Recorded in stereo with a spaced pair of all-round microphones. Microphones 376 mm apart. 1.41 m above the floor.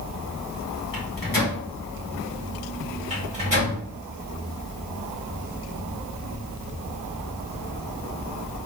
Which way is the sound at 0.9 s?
60° left (ahead or behind).